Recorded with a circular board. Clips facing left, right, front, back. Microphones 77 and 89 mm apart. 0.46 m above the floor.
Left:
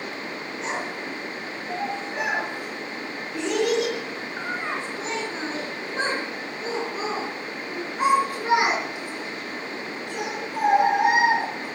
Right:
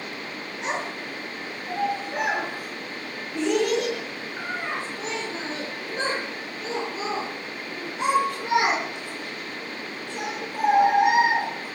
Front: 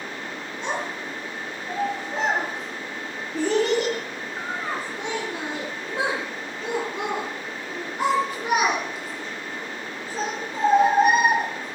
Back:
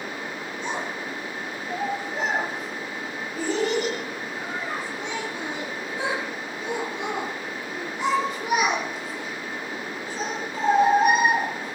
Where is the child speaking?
15° right, 5.5 m; by 11.7 s 60° left, 8 m.